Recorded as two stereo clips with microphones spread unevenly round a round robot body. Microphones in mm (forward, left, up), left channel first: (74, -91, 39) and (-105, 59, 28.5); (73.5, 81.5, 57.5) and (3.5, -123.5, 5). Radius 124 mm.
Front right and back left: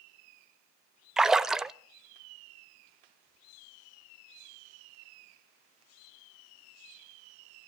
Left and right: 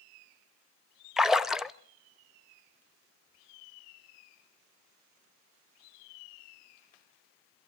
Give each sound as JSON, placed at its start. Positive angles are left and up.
{"t": 1.2, "sound": "a splash", "azimuth_deg": -145, "distance_m": 0.6}